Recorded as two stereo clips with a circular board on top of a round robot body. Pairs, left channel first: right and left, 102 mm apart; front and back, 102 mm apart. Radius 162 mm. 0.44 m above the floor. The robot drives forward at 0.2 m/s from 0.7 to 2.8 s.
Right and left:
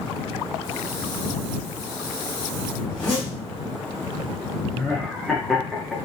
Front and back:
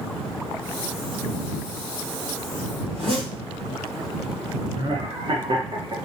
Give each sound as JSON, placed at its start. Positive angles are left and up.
{"t": 2.9, "sound": "a zipper", "azimuth_deg": -165, "distance_m": 1.6}
{"t": 4.7, "sound": "laughter", "azimuth_deg": 180, "distance_m": 1.0}